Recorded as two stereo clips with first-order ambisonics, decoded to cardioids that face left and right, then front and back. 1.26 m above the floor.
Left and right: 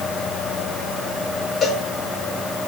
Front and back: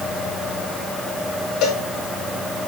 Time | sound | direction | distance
1.6 | a cowbell | 25° left | 1.9 m